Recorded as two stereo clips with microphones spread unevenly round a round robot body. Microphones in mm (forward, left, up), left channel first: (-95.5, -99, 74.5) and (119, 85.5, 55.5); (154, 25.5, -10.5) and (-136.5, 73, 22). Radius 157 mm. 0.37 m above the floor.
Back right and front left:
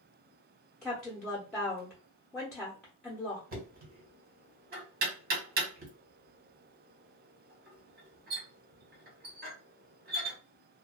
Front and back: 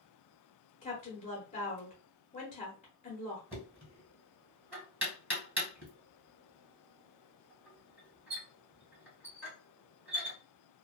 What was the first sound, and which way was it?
A woman speaking, 50° right.